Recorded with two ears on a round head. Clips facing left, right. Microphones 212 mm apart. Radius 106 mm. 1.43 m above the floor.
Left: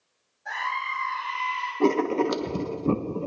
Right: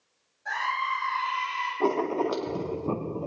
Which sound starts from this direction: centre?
A scream, at 0.5 s.